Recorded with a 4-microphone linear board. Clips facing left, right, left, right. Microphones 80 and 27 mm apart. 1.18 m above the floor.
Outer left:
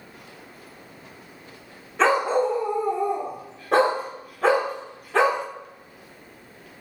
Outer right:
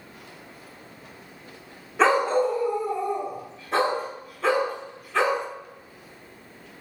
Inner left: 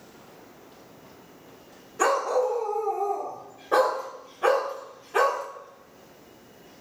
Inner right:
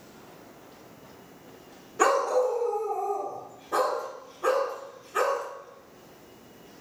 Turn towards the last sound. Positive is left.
turn(degrees=75)  # may be behind; listen again after turning